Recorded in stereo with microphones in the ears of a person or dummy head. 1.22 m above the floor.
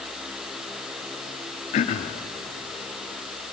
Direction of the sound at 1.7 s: 40° left (ahead or behind).